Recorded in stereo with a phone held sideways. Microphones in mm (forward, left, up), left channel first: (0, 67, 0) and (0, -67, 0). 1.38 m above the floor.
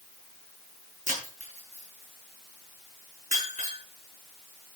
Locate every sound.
1.1 s breaking glass: 60° right (ahead or behind), 7 m